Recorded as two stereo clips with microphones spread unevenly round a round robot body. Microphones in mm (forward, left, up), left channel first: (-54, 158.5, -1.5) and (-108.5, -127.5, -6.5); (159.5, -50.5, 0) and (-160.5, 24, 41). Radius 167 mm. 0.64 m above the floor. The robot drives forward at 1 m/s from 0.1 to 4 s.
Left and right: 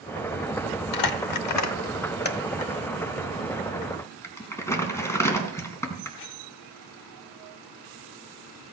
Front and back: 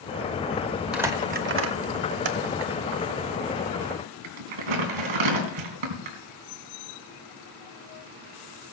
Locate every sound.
0.9 s crumpling: 80° left, 1.1 m; by 6.2 s 160° left, 3 m